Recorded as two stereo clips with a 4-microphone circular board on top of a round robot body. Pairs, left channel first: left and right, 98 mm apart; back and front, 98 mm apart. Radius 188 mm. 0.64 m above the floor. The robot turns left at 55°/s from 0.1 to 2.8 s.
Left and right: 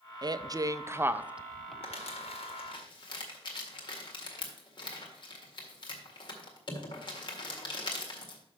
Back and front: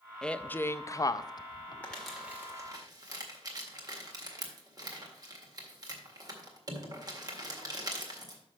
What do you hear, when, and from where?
0.2 s a woman speaking: 100° right, 0.6 m; by 1.7 s 175° left, 0.6 m
1.8 s crumpling: 105° left, 1.9 m; by 8.4 s 50° left, 1.9 m